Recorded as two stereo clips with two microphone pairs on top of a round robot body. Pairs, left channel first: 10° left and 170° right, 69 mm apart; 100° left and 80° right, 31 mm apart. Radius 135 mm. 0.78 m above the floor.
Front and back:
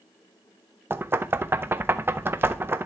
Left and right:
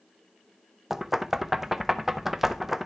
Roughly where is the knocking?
Behind.